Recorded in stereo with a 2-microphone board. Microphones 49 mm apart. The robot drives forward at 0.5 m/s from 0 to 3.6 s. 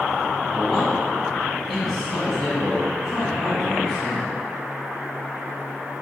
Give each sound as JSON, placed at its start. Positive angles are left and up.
{"t": 0.5, "sound": "a man speaking", "side_deg": 0, "distance_m": 1.4}